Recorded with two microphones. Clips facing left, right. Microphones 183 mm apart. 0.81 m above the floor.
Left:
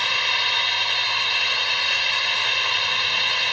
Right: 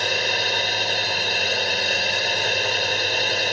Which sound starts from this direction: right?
A drone, at 0.0 s.